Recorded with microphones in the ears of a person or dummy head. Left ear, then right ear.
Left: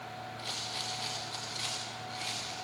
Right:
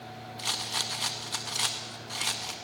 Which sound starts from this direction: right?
A rattle, at 0.4 s.